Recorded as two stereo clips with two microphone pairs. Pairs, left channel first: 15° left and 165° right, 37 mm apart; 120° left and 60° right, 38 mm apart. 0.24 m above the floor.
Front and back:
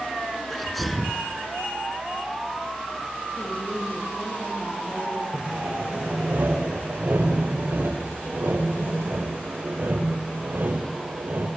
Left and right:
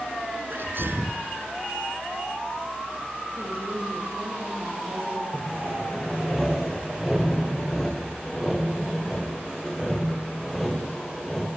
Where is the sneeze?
75° right, 2.5 m.